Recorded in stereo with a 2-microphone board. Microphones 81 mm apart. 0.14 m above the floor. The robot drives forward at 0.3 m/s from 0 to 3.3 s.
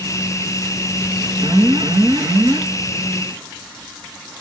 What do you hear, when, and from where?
1.4 s an alarm: 50° right (ahead or behind), 3 m; by 2.6 s 45° right (ahead or behind), 3 m